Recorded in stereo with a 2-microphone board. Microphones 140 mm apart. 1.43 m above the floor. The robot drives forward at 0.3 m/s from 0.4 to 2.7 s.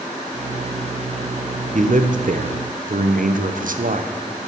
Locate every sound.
1.7 s a man speaking: 65° right (ahead or behind), 0.7 m; by 4.1 s 75° right (ahead or behind), 0.6 m